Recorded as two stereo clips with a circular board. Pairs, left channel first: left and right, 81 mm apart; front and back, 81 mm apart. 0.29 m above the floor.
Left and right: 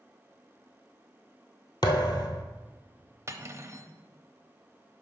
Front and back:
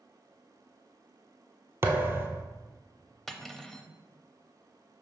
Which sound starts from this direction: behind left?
A thud, at 1.8 s.